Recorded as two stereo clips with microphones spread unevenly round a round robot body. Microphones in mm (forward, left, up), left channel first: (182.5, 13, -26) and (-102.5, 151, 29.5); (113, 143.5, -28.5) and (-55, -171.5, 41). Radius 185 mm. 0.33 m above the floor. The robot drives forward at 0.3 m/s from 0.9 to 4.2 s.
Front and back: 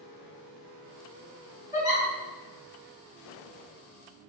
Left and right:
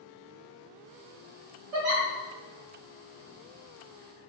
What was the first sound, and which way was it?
A giggle, 120° right.